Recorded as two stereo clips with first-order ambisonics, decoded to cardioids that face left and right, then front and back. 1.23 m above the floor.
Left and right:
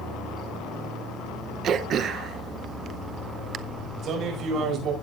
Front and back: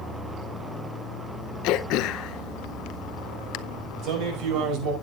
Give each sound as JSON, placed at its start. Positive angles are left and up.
{"t": 1.6, "sound": "throat clearing", "azimuth_deg": -30, "distance_m": 0.6}
{"t": 4.0, "sound": "a man speaking", "azimuth_deg": -145, "distance_m": 5.0}